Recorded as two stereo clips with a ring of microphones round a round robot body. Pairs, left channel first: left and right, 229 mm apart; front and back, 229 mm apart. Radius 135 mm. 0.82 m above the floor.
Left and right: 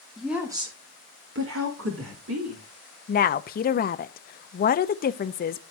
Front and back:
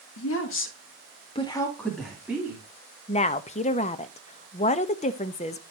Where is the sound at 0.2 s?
Straight ahead, 2 m; by 2.6 s 100° right, 3 m.